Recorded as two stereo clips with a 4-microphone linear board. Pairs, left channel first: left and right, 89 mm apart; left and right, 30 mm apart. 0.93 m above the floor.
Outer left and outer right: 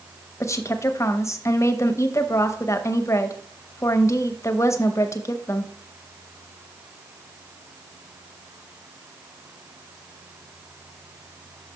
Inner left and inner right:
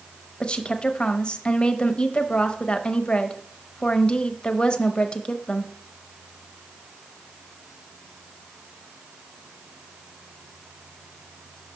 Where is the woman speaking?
35° left (ahead or behind), 0.7 m.